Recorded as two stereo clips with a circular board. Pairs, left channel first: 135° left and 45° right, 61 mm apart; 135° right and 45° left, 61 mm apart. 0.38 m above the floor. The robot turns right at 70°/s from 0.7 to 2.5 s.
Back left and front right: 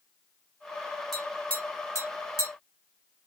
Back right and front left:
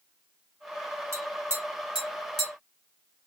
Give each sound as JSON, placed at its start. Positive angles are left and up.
{"t": 1.1, "sound": "tapping", "azimuth_deg": 50, "distance_m": 2.0}